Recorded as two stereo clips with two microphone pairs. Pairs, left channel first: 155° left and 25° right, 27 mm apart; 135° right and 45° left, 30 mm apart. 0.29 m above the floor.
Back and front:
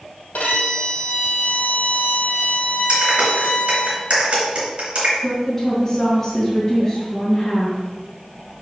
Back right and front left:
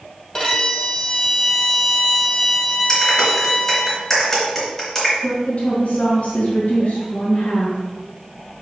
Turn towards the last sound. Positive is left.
turn(degrees=-120)